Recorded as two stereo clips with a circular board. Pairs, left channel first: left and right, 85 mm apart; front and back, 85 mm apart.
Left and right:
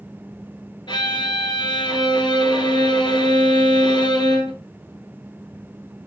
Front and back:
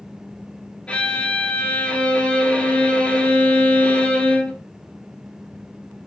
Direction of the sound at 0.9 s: 75° left.